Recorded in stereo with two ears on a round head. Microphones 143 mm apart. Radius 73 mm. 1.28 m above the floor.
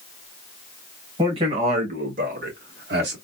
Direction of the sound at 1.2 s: 30° right (ahead or behind).